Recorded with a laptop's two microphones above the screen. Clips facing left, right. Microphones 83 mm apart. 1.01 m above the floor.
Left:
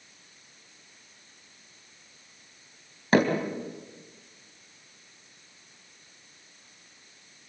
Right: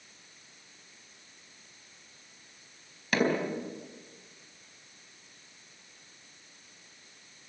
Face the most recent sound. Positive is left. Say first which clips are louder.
# left 5 dB
turn(degrees=35)  # may be behind; listen again after turning